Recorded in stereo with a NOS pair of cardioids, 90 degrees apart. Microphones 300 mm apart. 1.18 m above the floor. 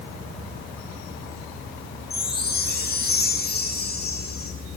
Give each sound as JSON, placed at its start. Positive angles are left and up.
{"t": 2.1, "sound": "a chime", "azimuth_deg": 30, "distance_m": 9.5}